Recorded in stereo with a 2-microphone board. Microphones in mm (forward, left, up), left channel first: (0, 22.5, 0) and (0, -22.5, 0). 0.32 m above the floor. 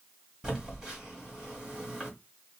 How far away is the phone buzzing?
About 1.8 m.